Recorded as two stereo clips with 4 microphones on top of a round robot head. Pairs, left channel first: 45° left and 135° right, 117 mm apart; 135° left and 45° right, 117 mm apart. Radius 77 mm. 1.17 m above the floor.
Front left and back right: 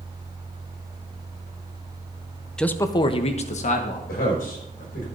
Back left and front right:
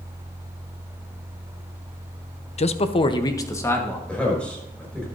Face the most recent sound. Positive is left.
turn(degrees=50)